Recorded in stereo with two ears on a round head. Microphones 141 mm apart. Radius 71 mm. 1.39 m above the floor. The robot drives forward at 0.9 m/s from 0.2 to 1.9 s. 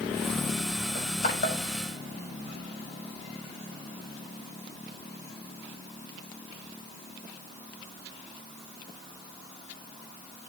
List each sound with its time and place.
0.9 s crushing: 60° left (ahead or behind), 6.5 m; by 1.6 s 55° left (ahead or behind), 6.5 m